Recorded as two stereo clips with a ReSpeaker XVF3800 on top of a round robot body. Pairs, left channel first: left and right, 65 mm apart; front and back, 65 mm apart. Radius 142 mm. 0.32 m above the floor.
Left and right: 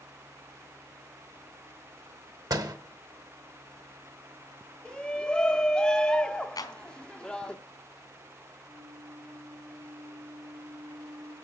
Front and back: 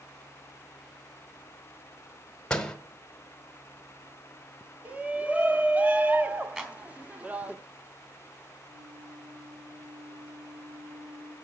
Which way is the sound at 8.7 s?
165° right.